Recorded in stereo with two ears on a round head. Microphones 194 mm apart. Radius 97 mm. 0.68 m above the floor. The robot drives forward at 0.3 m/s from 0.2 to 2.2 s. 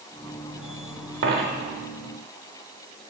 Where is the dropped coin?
55° right (ahead or behind), 1.0 m; by 1.7 s 50° right (ahead or behind), 1.1 m.